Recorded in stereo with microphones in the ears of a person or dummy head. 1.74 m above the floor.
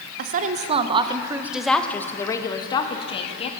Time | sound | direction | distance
0.2 | a woman speaking | 50° right (ahead or behind) | 1.5 m